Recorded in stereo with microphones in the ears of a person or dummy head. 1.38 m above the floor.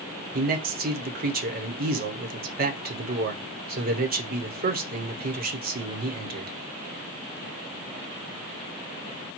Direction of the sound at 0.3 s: 45° right (ahead or behind).